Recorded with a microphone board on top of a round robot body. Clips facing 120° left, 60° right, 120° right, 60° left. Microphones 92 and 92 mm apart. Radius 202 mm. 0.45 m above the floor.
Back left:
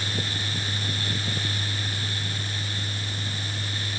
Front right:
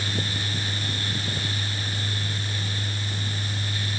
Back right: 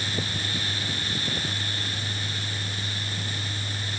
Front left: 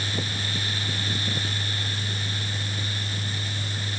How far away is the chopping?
No chopping in this recording.